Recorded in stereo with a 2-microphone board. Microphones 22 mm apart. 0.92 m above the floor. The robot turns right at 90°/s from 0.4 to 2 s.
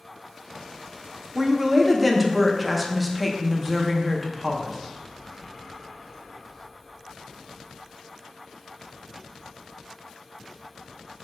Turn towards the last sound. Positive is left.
turn(degrees=-5)